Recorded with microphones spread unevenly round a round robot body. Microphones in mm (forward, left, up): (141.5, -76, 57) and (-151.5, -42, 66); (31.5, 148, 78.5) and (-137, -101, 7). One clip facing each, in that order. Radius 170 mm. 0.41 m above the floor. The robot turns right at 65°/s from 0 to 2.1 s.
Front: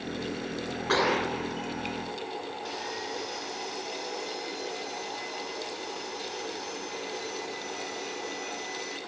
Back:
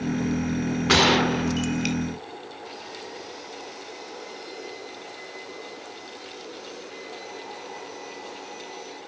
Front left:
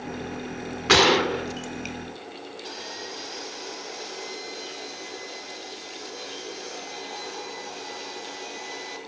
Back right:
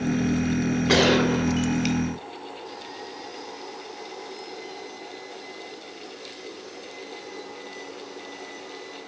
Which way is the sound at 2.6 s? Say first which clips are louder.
Front 2 dB, even; 55° left.